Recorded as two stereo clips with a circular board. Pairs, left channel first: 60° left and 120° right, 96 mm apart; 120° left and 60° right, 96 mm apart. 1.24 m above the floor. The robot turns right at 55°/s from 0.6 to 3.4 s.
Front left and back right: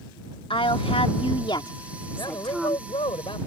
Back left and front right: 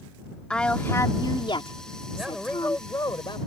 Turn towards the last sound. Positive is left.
turn(degrees=90)